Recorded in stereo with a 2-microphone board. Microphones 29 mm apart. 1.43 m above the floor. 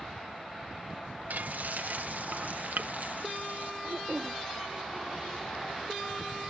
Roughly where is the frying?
Right.